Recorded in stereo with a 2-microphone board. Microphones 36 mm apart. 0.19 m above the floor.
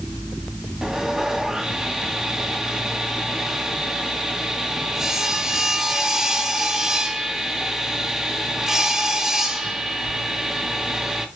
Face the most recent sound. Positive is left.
turn(degrees=-15)  # may be behind; listen again after turning